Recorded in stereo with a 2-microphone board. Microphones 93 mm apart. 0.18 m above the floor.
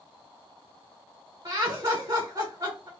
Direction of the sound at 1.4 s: 30° right (ahead or behind).